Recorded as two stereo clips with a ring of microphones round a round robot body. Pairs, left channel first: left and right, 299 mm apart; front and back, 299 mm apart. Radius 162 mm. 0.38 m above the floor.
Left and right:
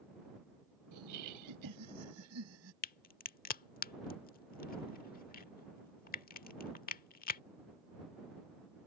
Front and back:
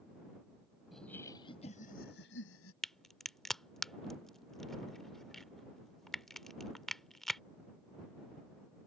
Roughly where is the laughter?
Right.